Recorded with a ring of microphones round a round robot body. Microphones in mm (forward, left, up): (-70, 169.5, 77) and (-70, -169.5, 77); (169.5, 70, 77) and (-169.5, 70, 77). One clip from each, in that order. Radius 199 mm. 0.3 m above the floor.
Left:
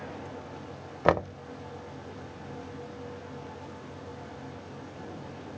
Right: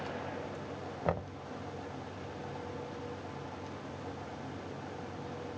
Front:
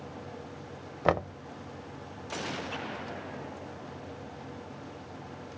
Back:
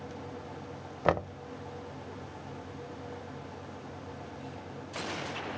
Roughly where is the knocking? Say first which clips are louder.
Left 11 dB, front 1 dB; left.